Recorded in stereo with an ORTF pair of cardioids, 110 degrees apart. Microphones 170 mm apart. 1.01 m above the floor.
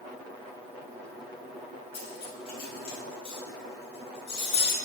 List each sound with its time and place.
1.9 s cutlery clinking: 35° left, 3 m